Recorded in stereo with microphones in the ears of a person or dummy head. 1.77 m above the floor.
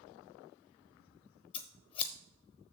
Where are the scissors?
35° left (ahead or behind), 0.9 m.